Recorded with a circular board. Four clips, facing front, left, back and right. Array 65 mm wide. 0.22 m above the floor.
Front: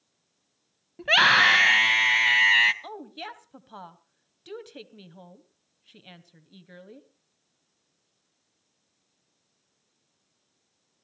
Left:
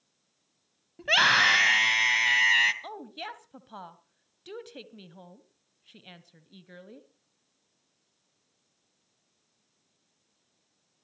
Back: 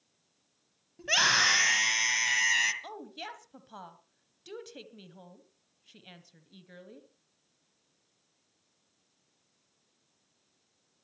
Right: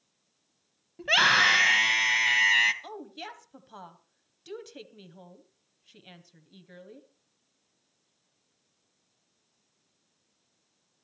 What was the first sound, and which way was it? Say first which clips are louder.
A scream: even, front 8 dB; 5° left.